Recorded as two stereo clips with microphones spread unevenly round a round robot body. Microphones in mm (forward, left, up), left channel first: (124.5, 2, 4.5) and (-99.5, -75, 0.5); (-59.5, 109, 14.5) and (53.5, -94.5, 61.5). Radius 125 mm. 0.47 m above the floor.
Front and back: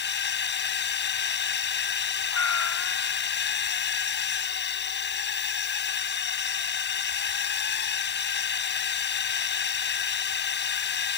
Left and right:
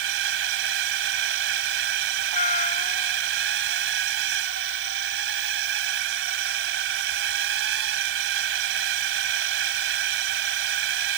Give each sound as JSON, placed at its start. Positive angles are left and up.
{"t": 0.0, "sound": "a drone", "azimuth_deg": -20}
{"t": 2.3, "sound": "a cat meowing", "azimuth_deg": 55}